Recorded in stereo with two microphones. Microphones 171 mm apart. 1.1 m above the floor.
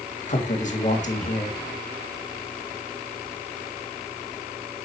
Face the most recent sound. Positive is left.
turn(degrees=45)  # may be behind; listen again after turning